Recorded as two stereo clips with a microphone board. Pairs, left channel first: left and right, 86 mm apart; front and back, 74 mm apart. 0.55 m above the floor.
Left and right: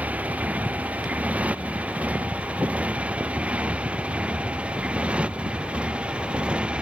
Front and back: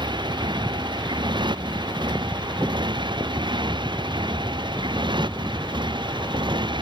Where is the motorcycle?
165° right; by 6.8 s 170° right.